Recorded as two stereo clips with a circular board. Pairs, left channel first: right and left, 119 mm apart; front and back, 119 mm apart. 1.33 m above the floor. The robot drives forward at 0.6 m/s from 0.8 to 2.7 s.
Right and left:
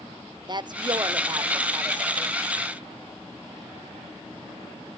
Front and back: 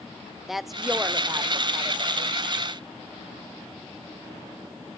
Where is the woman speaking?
95° left, 0.6 m; by 2.3 s 160° left, 1.1 m.